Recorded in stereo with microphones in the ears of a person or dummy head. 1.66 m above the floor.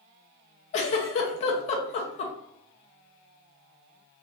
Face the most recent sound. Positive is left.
turn(degrees=40)  # may be behind; listen again after turning